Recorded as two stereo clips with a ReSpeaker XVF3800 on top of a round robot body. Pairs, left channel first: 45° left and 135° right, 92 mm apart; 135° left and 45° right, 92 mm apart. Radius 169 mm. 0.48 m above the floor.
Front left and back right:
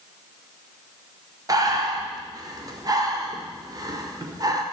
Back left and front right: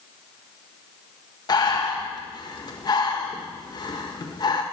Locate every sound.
1.5 s breathing: 175° left, 1.6 m